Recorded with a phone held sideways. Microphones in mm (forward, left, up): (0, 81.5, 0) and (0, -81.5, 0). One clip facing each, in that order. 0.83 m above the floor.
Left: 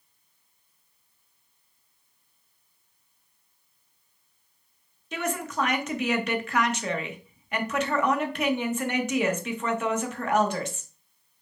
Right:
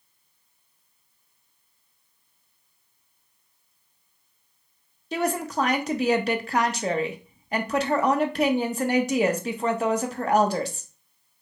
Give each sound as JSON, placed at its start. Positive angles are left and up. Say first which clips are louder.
{"t": 5.1, "sound": "a woman speaking", "louder": "right 4 dB", "side_deg": -35, "distance_m": 0.8}